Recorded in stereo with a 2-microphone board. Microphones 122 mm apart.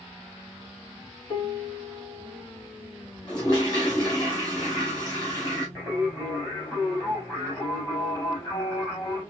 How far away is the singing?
About 5.5 m.